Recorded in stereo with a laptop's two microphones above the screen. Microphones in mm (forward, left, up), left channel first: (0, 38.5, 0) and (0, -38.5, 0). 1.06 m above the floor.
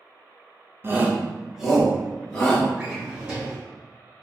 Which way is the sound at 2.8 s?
15° right (ahead or behind).